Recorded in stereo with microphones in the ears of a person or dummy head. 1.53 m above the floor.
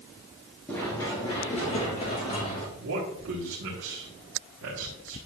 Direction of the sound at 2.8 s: 80° right.